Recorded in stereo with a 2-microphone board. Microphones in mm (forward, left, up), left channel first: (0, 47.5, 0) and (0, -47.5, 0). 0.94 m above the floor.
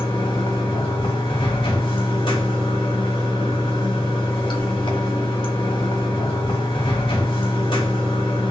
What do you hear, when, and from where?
0.0 s running water: 55° left (ahead or behind), 1.3 m